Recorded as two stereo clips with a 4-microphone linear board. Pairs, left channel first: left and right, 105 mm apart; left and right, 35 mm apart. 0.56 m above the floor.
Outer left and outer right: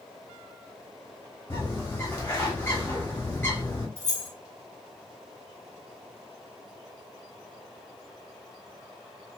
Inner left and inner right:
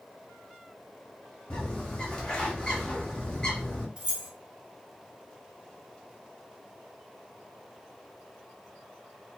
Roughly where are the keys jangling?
Right.